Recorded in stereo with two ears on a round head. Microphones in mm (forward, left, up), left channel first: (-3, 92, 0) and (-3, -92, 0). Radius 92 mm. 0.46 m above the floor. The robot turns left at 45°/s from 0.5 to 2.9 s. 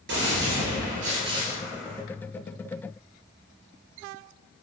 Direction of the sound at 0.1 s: 115° right.